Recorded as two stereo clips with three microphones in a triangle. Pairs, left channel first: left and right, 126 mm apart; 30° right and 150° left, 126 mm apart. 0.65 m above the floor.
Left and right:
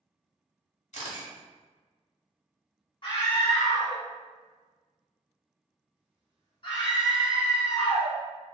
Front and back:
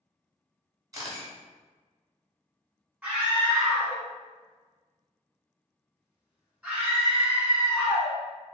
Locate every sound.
0.9 s a camera shutter: 90° left, 0.9 m
3.0 s a scream: 75° left, 1.2 m